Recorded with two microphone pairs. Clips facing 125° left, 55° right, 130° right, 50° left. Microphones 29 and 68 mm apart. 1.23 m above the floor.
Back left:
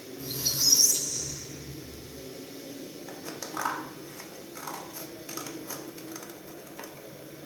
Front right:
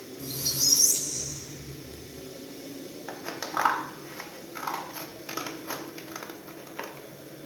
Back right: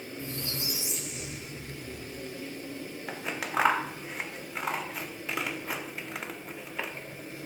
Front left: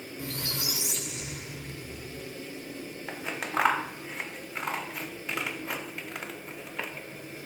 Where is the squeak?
45° left, 3 m.